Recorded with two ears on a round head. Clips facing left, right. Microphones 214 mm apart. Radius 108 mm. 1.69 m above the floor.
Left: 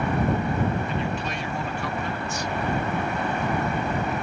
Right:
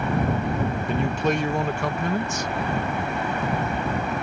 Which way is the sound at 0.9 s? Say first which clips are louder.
Right 5 dB; 40° right (ahead or behind).